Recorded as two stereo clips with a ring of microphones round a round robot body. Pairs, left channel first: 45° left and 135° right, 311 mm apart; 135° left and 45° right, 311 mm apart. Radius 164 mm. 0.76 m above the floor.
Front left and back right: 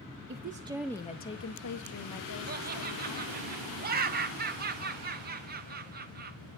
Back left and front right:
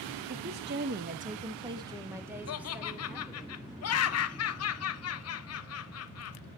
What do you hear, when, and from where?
0.3 s a woman speaking: 95° right, 0.8 m; by 3.5 s 45° left, 2.5 m
2.5 s laughter: 170° left, 0.9 m